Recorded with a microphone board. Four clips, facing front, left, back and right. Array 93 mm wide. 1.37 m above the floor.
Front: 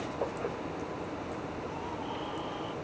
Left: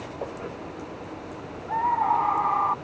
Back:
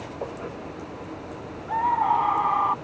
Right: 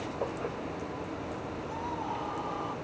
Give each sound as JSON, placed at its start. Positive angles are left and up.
{"t": 1.7, "sound": "a scream", "azimuth_deg": 145}